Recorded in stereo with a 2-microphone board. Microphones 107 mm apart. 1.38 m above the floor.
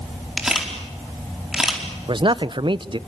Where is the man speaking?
50° right (ahead or behind), 0.6 m.